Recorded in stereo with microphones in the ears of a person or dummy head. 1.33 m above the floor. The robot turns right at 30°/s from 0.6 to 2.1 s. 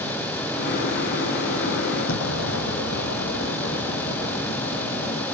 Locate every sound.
2.1 s an explosion: 70° left (ahead or behind)